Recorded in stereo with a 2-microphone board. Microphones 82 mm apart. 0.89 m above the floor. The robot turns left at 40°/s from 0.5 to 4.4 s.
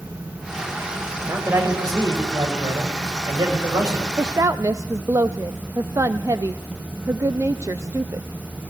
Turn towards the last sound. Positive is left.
turn(degrees=-40)  # may be behind; listen again after turning